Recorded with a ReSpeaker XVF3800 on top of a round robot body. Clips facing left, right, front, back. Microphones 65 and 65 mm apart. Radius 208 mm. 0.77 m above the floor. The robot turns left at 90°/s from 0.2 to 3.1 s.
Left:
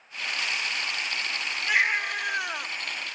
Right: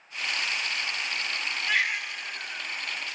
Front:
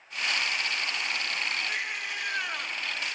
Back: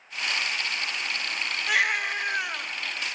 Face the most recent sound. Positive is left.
turn(degrees=45)